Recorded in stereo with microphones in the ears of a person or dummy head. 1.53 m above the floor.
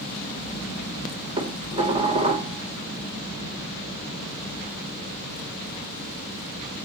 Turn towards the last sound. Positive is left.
turn(degrees=-30)  # may be behind; listen again after turning